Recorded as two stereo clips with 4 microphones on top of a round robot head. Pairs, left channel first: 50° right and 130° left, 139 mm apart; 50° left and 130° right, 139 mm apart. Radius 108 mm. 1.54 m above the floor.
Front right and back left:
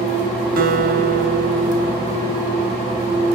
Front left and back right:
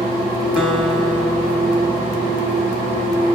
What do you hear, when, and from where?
0.6 s a guitar: 145° left, 2.5 m